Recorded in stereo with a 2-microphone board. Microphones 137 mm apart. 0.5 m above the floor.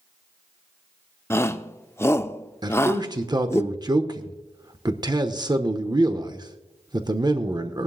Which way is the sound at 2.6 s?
30° right (ahead or behind).